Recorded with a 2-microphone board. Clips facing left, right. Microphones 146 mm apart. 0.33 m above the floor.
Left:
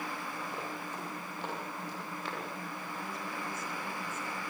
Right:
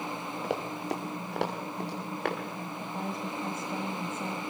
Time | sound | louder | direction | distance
0.4 | running footsteps | right 8 dB | 85° right | 4 m
2.8 | a woman speaking | right 5 dB | 50° right (ahead or behind) | 1.8 m